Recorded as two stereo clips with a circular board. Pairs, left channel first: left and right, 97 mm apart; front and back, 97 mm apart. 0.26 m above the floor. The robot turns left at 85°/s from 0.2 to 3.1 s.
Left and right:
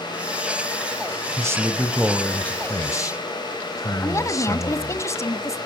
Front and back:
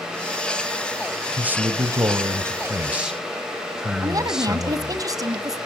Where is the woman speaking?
140° left, 1.9 m.